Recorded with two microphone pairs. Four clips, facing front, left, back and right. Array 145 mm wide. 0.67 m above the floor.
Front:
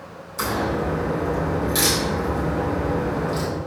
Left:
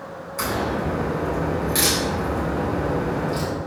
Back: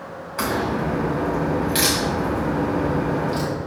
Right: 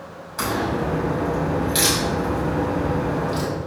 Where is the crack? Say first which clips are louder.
Right 1 dB, back 1 dB; 160° right, 3 m.